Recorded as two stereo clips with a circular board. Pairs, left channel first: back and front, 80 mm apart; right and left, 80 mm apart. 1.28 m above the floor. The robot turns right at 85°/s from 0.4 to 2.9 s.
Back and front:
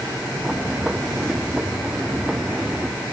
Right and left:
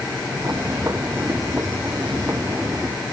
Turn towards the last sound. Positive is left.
No sound to turn to.